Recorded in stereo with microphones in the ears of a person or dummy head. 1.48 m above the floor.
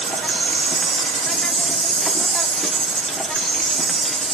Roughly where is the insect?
Centre.